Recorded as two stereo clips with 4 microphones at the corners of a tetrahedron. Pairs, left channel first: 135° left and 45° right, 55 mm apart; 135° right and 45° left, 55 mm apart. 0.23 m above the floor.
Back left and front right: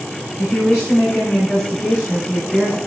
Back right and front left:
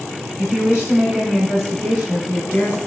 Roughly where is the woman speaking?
Left.